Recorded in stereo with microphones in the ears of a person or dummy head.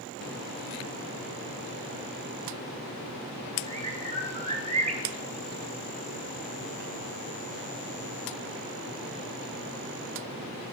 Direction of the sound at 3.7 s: 30° right (ahead or behind).